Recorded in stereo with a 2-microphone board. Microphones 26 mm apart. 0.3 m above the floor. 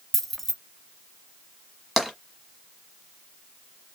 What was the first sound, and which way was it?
Keys jangling, 10° left (ahead or behind).